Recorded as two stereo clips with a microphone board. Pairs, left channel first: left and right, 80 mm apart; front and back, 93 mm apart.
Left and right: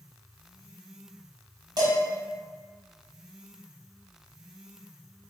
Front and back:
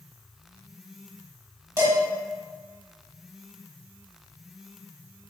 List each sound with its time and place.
1.8 s dishes clattering: 125° right, 2.0 m